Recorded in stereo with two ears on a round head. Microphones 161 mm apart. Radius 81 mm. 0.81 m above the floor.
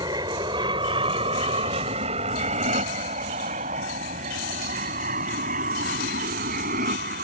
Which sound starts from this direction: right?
An aircraft, at 0.0 s.